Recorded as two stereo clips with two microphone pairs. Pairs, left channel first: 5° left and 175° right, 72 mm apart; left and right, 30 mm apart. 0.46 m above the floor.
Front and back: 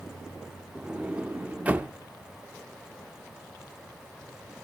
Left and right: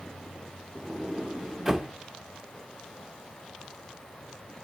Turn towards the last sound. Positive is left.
turn(degrees=-150)